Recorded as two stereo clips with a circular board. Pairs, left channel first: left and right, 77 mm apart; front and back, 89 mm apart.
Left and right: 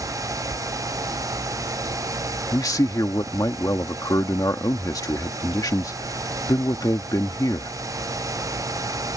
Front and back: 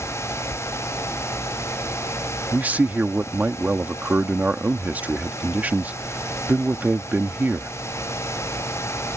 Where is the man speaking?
110° left.